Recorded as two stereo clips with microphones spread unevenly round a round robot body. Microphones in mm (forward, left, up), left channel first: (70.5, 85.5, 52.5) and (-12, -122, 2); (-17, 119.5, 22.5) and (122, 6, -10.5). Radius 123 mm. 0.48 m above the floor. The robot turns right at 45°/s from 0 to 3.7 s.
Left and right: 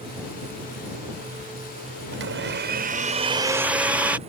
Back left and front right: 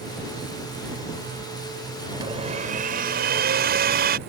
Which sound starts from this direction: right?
A blender, at 2.1 s.